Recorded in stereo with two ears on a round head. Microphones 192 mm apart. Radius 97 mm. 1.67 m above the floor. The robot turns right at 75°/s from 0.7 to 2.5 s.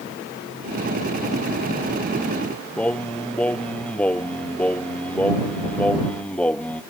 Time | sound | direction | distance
2.8 | singing | 5° left (ahead or behind) | ?